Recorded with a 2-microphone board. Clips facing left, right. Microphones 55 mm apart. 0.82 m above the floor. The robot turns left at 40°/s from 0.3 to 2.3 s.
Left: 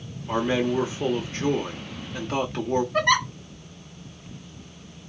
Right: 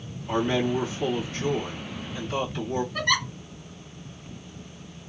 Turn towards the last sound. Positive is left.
turn(degrees=50)  # may be behind; listen again after turning